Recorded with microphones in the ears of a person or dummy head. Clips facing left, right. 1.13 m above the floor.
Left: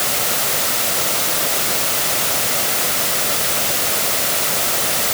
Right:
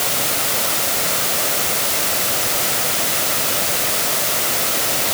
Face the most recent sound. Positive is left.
No sound to turn to.